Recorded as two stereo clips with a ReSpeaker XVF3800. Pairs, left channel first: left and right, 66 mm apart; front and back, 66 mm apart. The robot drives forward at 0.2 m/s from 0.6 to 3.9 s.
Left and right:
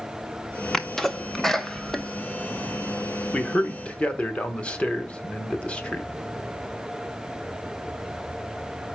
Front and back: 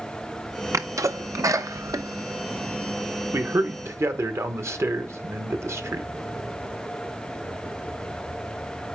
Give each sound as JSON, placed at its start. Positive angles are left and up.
{"t": 0.7, "sound": "a sneeze", "azimuth_deg": 170, "distance_m": 0.7}
{"t": 3.3, "sound": "a man speaking", "azimuth_deg": 150, "distance_m": 1.0}